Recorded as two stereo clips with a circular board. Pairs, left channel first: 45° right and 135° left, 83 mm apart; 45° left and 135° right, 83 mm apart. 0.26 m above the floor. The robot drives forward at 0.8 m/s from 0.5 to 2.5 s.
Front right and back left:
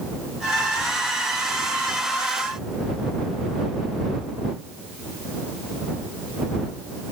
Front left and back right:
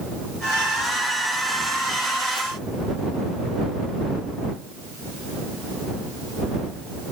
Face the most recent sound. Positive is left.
No sound to turn to.